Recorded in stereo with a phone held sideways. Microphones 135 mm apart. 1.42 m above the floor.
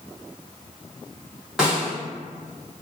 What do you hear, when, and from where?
1.6 s a snare drum: 5° right (ahead or behind), 1.3 m